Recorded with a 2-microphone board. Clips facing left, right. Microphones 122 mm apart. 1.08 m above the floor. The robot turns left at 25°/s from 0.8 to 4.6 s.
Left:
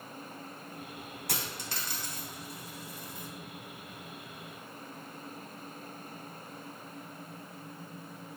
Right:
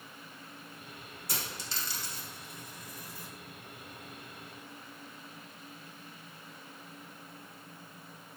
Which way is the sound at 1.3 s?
65° left (ahead or behind).